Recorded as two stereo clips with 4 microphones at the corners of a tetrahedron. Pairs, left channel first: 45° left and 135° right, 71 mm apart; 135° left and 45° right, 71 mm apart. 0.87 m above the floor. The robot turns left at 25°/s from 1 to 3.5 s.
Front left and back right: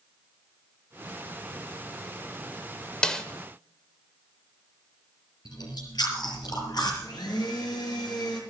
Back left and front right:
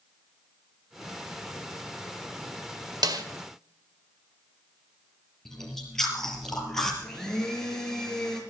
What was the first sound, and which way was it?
A snare drum, 30° right.